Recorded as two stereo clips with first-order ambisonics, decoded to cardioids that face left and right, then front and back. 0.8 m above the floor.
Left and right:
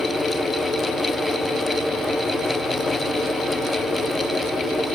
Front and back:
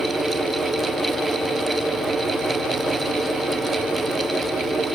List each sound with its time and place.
Only background noise.